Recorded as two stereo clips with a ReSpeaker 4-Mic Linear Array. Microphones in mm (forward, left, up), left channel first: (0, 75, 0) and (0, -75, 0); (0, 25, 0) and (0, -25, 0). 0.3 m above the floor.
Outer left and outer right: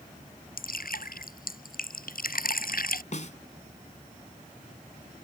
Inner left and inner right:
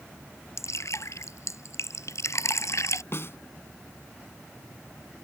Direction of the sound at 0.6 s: 75° left (ahead or behind).